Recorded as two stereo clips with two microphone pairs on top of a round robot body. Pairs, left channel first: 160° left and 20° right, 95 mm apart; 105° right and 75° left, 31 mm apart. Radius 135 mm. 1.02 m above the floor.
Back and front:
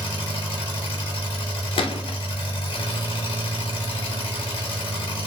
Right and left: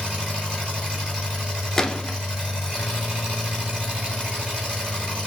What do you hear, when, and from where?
0.0 s an engine running: 135° left, 2 m
1.8 s a gunshot: 175° right, 0.6 m